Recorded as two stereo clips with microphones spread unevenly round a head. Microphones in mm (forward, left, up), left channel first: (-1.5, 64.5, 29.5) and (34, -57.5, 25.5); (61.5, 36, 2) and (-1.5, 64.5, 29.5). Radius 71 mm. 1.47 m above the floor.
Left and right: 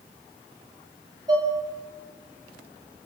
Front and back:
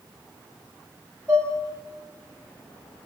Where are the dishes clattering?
135° right, 7.5 m.